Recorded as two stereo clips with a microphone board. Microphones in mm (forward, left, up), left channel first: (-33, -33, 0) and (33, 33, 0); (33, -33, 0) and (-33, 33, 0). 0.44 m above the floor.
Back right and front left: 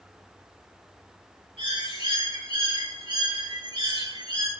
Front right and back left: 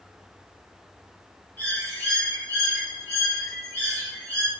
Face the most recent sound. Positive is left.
turn(degrees=25)